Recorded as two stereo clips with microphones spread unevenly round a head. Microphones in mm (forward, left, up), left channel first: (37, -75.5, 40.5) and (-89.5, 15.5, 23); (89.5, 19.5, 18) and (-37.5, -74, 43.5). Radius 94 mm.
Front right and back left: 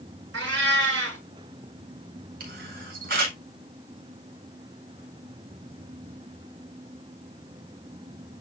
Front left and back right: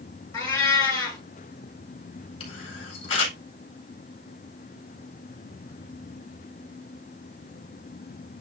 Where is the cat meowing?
110° left, 6 m.